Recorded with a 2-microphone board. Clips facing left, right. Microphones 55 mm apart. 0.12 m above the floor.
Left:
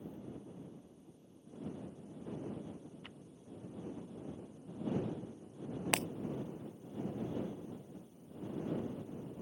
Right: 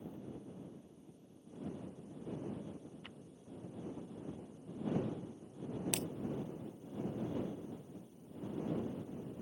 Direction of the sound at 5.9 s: 65° left (ahead or behind).